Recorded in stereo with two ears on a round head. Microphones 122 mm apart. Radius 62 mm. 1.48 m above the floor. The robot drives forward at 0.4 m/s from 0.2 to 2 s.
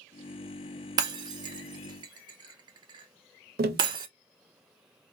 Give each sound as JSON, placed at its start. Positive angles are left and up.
{"t": 1.0, "sound": "breaking glass", "side_deg": -30, "distance_m": 0.7}
{"t": 3.6, "sound": "tapping", "side_deg": -75, "distance_m": 0.7}